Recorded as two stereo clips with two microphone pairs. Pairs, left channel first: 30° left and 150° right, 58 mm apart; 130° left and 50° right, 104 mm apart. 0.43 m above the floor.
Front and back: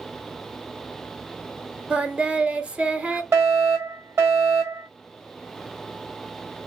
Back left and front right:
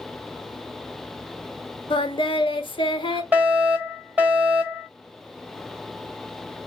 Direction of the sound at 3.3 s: 120° right.